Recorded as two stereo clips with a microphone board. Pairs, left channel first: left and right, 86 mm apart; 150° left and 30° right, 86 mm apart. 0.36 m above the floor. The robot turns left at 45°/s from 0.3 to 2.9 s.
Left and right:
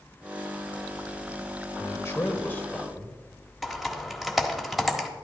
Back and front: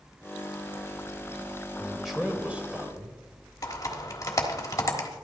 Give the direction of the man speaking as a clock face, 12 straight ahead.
10 o'clock.